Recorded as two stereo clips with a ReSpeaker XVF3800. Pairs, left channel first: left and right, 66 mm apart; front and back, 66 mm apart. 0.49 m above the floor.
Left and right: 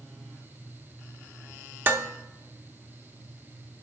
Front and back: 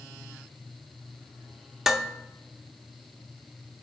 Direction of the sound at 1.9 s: 100° right.